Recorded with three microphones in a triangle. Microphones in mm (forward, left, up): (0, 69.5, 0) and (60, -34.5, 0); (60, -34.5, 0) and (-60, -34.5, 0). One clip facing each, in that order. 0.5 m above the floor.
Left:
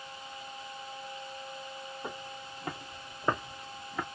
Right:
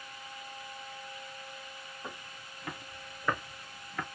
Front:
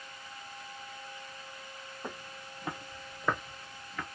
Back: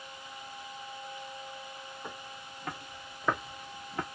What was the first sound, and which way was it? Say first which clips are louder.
Footsteps: left 3 dB, front 1 dB; 60° left.